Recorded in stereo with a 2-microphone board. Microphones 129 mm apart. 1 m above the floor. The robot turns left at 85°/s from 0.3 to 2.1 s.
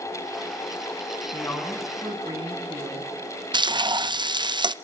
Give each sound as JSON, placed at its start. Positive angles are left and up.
{"t": 1.3, "sound": "a woman speaking", "azimuth_deg": 40, "distance_m": 8.5}
{"t": 3.5, "sound": "frying", "side_deg": -35, "distance_m": 0.6}